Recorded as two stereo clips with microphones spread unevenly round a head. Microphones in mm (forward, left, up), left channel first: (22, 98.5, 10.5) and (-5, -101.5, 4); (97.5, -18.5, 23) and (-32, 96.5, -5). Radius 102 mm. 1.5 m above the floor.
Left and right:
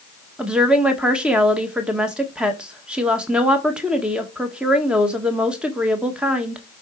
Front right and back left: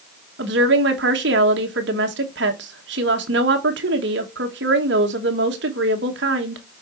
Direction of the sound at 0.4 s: 175° left.